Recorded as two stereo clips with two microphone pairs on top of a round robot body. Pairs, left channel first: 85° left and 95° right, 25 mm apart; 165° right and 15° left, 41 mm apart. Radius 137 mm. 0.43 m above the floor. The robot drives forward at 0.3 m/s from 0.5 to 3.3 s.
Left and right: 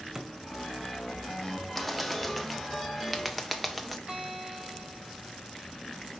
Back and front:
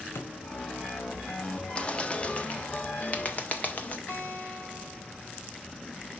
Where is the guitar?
165° right, 4.5 m.